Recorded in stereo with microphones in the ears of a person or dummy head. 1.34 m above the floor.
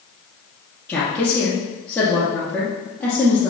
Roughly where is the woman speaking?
Centre.